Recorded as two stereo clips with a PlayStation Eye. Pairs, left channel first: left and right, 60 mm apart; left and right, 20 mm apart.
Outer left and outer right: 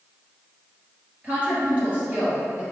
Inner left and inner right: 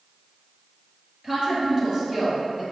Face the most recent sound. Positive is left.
turn(degrees=-30)  # may be behind; listen again after turning